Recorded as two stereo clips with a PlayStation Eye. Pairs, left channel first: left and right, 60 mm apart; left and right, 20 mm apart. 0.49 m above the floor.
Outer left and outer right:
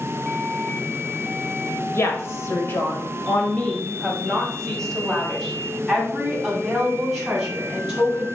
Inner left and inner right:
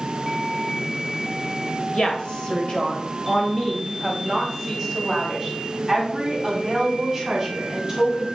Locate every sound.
1.9 s a woman speaking: 50° left (ahead or behind), 1.6 m; by 8.3 s 10° right (ahead or behind), 4 m